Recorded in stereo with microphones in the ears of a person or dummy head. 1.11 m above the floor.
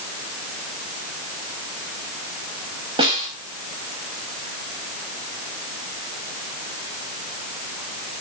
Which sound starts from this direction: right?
A snare drum, at 3.0 s.